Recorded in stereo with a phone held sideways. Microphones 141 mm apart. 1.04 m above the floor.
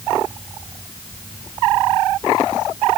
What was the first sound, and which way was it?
Only background noise.